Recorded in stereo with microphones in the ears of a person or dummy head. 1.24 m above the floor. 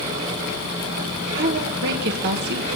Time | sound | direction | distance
1.4 | a woman speaking | 55° right (ahead or behind) | 1.6 m